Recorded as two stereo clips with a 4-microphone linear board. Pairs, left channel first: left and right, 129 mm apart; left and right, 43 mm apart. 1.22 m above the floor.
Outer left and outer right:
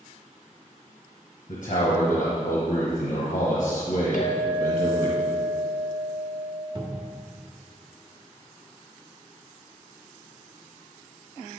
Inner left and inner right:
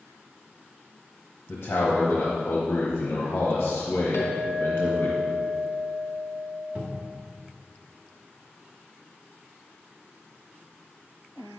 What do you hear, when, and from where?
1.5 s a man speaking: 75° left (ahead or behind), 1.1 m
4.1 s a clink: 75° left (ahead or behind), 1.2 m
6.8 s a cupboard door: 40° right (ahead or behind), 1.2 m